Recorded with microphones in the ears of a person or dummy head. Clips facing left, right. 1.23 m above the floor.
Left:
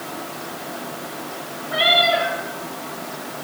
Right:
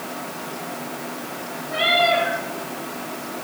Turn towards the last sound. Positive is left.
turn(degrees=0)  # may be behind; listen again after turning